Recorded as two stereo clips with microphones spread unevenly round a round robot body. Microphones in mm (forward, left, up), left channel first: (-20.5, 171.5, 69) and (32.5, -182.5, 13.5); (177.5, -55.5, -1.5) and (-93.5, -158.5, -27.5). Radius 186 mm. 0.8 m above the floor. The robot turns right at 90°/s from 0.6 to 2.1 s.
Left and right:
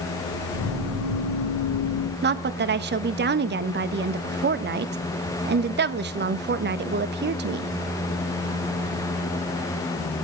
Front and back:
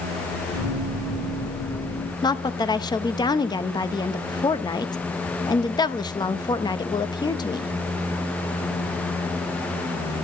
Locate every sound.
2.2 s a woman speaking: 55° right, 0.8 m